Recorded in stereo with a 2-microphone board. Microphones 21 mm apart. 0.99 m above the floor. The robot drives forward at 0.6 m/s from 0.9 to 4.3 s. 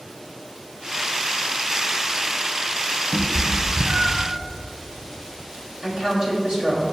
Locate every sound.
3.1 s a cat meowing: 60° right (ahead or behind), 1.4 m; by 4.4 s 55° right (ahead or behind), 1.5 m
5.8 s a woman speaking: 30° right (ahead or behind), 3.5 m